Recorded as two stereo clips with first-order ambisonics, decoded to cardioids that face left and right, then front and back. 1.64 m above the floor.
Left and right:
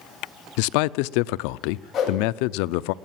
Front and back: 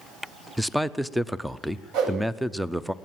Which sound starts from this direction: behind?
A whoosh, at 1.9 s.